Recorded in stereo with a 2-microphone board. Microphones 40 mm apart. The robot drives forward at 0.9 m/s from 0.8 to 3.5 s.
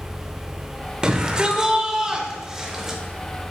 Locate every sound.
1.0 s a shout: 25° right (ahead or behind), 0.9 m; by 3.0 s 10° right (ahead or behind), 1.8 m